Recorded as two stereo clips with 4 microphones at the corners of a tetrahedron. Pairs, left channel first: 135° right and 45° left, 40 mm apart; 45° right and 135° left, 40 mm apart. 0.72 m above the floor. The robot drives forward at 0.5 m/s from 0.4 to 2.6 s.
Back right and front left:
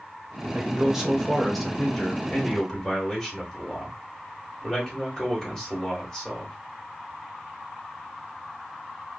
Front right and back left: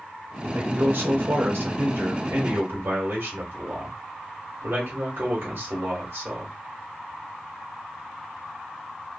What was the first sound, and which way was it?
A man speaking, 115° left.